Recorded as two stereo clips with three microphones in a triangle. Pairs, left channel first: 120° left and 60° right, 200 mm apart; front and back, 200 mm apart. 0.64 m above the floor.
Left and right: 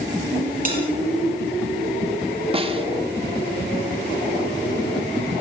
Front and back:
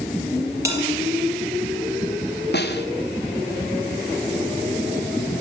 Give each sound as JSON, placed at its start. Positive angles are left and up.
{"t": 0.7, "sound": "a bell", "azimuth_deg": -105, "distance_m": 7.5}
{"t": 2.5, "sound": "a snare drum", "azimuth_deg": -5, "distance_m": 2.0}